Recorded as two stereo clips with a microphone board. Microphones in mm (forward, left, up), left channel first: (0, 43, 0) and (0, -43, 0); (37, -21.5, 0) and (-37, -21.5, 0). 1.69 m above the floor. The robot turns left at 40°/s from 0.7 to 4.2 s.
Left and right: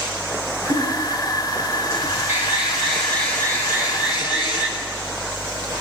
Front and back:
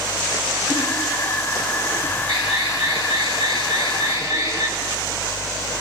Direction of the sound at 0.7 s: 115° right.